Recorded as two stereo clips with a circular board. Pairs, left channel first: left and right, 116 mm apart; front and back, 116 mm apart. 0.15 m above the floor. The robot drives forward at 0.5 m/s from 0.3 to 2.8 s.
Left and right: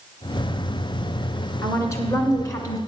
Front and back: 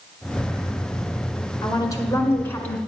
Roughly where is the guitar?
No guitar in this recording.